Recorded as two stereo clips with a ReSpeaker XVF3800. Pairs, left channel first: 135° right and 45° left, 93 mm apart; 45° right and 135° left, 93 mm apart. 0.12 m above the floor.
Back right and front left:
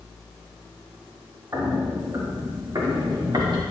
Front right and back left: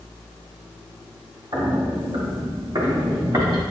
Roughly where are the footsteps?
Left.